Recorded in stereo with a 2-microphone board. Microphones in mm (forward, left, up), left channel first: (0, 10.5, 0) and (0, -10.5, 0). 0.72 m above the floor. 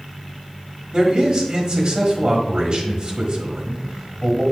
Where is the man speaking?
45° right (ahead or behind), 1.4 m.